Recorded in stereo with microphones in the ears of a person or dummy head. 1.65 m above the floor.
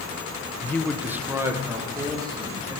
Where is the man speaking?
20° left (ahead or behind), 0.6 m; by 2.8 s 20° right (ahead or behind), 4 m.